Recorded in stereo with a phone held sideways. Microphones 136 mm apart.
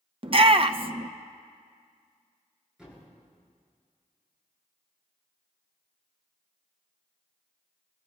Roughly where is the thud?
Centre.